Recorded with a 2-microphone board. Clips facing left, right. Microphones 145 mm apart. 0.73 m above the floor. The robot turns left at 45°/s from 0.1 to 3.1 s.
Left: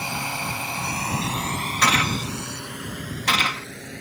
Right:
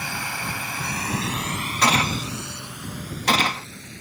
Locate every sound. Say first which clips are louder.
0.0 s a drone: left 2 dB; 25° left (ahead or behind); by 4.0 s 75° left (ahead or behind)
1.8 s a gunshot: right 2 dB; 25° right (ahead or behind); by 3.7 s 40° right (ahead or behind)